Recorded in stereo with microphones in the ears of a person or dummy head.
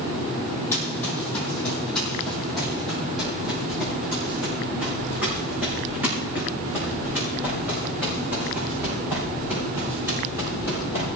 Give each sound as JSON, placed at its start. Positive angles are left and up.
{"t": 0.7, "sound": "running footsteps", "side_deg": 5, "distance_m": 3.0}